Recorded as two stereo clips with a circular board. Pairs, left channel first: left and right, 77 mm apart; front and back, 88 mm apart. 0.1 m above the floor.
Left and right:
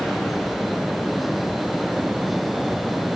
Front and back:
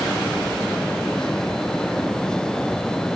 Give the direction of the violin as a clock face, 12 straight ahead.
No violin in this recording.